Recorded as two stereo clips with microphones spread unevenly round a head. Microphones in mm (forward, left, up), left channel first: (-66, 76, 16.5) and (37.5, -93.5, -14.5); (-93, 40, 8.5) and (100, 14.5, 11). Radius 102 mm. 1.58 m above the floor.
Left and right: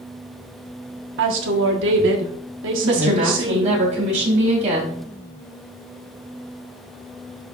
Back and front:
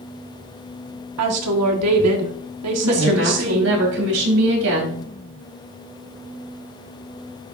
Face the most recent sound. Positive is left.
turn(degrees=0)